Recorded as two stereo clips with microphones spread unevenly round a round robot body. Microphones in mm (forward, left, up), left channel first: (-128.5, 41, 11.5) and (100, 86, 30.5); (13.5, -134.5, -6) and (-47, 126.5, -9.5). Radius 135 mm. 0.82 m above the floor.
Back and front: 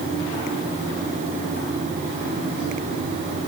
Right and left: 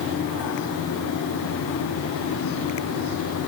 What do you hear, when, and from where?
Only background noise.